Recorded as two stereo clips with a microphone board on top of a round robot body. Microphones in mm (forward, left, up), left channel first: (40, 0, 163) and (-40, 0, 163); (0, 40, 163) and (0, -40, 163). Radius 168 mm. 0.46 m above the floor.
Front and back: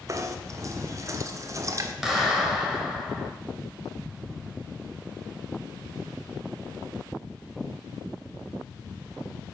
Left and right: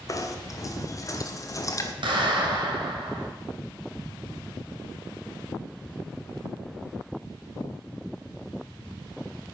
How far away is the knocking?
About 1.4 m.